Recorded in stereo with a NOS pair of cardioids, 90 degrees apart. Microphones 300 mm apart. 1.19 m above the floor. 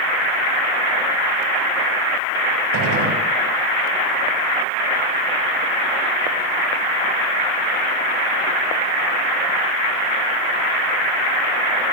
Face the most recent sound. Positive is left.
turn(degrees=-70)